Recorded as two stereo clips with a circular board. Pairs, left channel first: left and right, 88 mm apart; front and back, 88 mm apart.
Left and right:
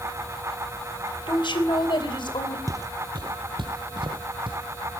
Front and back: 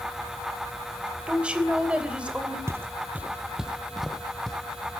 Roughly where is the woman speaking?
Left.